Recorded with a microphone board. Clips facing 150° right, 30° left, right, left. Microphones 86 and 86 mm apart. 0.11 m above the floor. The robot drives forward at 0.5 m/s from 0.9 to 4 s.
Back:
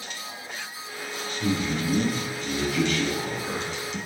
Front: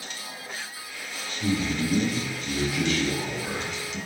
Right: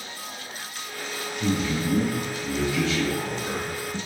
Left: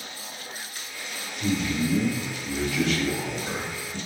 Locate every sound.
1.4 s a man speaking: 120° right, 1.4 m; by 4.0 s 155° right, 2 m